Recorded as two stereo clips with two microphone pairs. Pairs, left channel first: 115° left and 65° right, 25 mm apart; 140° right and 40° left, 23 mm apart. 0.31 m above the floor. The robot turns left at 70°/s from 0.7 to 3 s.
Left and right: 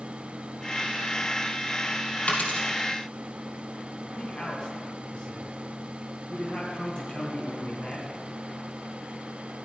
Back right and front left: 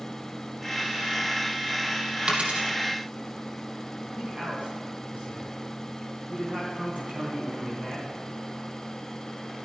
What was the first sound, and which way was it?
A dropped coin, 90° left.